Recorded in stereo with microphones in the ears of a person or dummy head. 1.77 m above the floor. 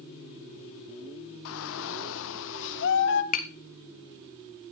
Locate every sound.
1.4 s a shout: 75° left (ahead or behind), 1.4 m; by 3.2 s 60° left (ahead or behind), 2 m
3.3 s tapping: 45° left (ahead or behind), 1.4 m